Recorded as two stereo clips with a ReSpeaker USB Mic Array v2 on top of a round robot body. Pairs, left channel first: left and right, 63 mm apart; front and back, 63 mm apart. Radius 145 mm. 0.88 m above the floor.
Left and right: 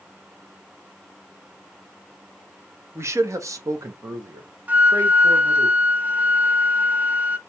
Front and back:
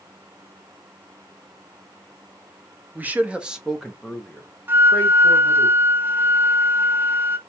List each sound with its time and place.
3.0 s a man speaking: 125° right, 1.1 m; by 5.7 s 60° right, 1.7 m
4.7 s a flute: 140° right, 0.8 m